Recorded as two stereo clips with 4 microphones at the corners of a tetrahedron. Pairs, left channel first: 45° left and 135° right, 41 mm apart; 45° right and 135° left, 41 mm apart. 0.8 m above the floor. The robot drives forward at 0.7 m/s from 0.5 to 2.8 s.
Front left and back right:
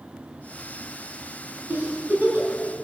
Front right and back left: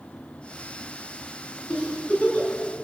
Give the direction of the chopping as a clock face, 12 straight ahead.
I don't hear chopping.